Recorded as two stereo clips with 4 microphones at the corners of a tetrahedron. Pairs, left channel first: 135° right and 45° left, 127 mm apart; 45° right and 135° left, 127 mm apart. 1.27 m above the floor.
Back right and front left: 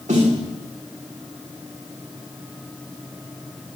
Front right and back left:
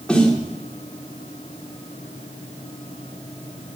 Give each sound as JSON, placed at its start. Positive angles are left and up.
{"t": 0.1, "sound": "a snare drum", "azimuth_deg": 40, "distance_m": 3.0}